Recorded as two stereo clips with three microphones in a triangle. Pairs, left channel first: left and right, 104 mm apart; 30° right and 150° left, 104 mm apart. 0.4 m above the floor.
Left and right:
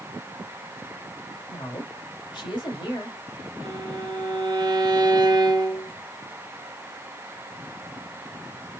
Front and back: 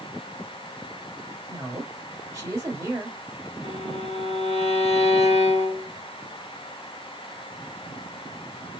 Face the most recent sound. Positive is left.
turn(degrees=-40)